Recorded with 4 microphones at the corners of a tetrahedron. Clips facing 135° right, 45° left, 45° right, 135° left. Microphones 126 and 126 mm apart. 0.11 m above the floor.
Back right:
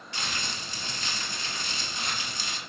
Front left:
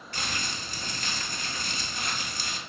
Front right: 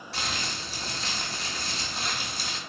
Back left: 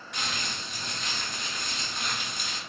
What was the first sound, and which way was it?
Crumpling, 10° left.